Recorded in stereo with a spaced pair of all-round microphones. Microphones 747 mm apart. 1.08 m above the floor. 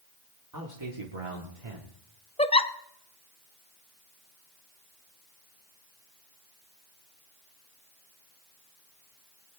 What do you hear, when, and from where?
0.5 s a man speaking: 25° right (ahead or behind), 2 m; by 1.9 s 70° right (ahead or behind), 2.5 m
2.4 s a giggle: 10° left (ahead or behind), 0.6 m